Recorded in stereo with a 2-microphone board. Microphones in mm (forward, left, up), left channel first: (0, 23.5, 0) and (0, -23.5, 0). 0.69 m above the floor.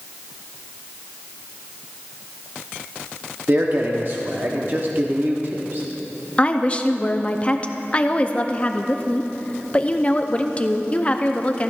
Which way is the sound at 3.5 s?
50° right (ahead or behind).